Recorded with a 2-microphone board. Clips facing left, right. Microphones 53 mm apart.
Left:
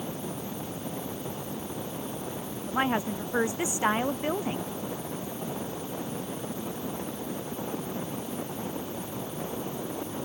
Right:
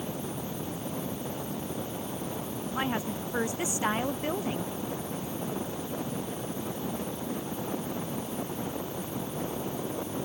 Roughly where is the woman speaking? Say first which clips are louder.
Left 5 dB; left.